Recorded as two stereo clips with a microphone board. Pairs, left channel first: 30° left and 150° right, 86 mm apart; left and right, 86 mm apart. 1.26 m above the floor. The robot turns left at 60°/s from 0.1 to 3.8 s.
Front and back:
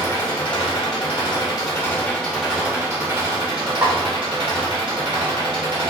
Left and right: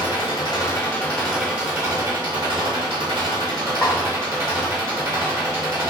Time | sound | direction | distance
0.0 | an engine running | 70° left | 1.3 m
3.8 | a snare drum | 155° left | 1.8 m